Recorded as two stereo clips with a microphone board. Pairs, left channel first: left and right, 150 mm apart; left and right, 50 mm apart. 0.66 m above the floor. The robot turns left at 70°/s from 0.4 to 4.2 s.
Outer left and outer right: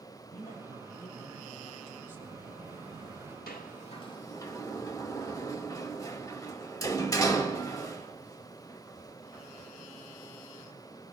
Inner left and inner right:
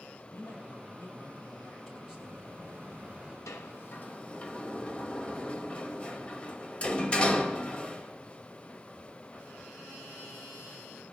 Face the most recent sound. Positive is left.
turn(degrees=25)  # may be behind; listen again after turning